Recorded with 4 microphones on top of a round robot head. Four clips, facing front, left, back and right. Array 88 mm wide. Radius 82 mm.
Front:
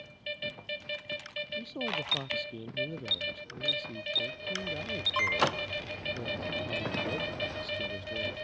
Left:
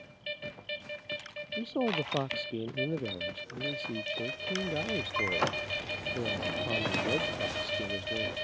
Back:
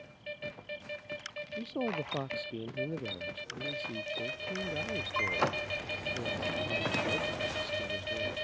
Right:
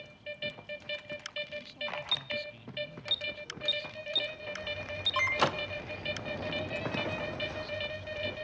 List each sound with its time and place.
1.6 s a man speaking: 105° left; by 8.3 s 85° left